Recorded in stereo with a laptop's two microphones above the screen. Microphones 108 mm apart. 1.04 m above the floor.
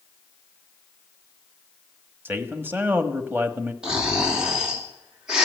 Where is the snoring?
10° right (ahead or behind), 2.5 m.